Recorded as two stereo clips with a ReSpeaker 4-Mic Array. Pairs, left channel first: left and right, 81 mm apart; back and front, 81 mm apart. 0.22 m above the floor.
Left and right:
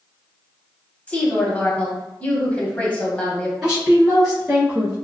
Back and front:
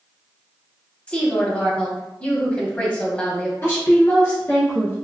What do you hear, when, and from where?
1.1 s a woman speaking: 135° left, 1.0 m
3.6 s a woman speaking: 170° right, 1.7 m